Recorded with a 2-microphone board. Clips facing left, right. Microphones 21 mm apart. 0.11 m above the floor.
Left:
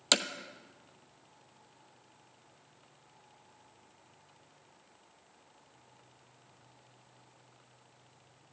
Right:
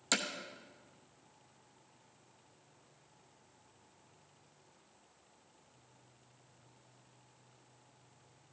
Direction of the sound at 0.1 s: 45° left (ahead or behind).